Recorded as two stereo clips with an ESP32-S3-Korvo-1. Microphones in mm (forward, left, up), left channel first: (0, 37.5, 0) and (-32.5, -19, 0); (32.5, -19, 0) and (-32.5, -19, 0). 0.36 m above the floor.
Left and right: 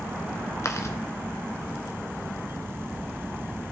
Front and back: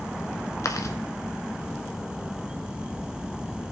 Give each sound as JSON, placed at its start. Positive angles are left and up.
{"t": 0.6, "sound": "chewing", "azimuth_deg": 25, "distance_m": 1.2}